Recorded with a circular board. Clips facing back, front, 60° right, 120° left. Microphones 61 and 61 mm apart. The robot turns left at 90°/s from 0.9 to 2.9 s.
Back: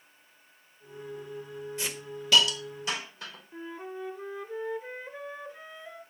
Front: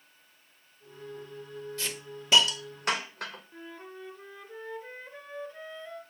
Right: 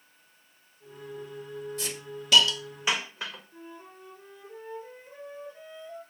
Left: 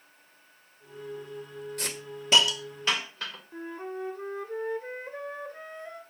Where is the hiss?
115° left, 1.4 m; by 3.4 s 15° left, 1.4 m.